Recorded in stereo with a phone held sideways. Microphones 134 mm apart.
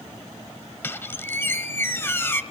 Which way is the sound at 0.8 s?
15° left (ahead or behind).